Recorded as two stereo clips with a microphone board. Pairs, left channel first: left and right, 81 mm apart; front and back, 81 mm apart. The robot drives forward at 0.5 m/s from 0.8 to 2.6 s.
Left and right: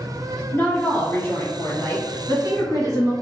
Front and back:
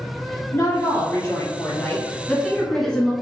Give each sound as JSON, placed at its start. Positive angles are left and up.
{"t": 0.5, "sound": "a woman speaking", "azimuth_deg": 35, "distance_m": 1.7}